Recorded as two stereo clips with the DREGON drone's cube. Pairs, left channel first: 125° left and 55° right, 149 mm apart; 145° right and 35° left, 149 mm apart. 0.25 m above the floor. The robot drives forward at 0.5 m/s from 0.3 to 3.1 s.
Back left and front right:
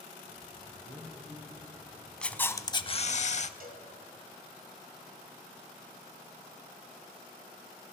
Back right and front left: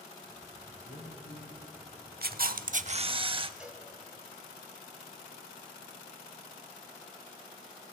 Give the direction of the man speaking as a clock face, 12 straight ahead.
3 o'clock.